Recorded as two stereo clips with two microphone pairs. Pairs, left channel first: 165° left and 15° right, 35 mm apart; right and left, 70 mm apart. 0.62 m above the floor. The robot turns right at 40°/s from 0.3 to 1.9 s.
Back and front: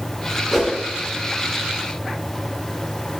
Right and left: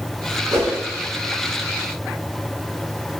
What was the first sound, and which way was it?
A whoosh, 65° left.